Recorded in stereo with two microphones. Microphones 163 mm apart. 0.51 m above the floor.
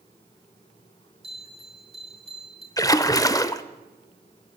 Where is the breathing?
I don't hear breathing.